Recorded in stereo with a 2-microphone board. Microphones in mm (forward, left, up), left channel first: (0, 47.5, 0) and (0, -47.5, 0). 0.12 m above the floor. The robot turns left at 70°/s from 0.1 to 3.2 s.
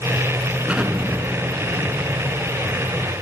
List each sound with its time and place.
0.7 s an explosion: 10° right (ahead or behind), 1.4 m; by 3.2 s 10° left (ahead or behind), 1.4 m